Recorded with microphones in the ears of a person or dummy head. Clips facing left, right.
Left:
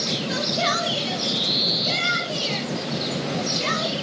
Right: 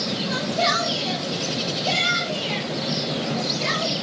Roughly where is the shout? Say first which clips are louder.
Right 2 dB; left.